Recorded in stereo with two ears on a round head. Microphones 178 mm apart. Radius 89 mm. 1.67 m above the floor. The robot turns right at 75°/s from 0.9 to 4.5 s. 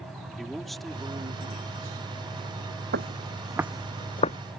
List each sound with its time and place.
0.3 s a man speaking: straight behind; by 2.0 s 100° right
2.9 s footsteps: 55° right (ahead or behind); by 4.4 s 40° left (ahead or behind)